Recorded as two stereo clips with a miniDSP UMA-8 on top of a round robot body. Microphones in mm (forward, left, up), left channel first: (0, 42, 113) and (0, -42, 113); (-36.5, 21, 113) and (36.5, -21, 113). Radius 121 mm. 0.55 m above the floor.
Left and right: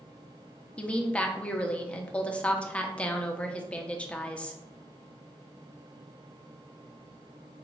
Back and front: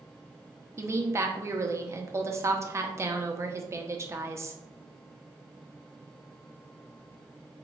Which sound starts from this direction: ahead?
A woman speaking, at 0.8 s.